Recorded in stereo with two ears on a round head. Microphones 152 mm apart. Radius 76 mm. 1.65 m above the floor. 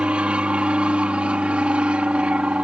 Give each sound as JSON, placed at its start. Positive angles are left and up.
{"t": 0.0, "sound": "an aircraft", "side_deg": -5}